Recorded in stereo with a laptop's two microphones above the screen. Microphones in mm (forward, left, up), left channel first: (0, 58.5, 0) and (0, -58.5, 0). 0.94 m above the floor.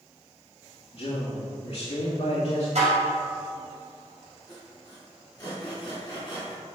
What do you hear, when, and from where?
0.9 s a man speaking: 65° left (ahead or behind), 1.8 m
2.8 s dishes clattering: 85° right, 2.5 m
4.5 s sawing: 40° left (ahead or behind), 2.5 m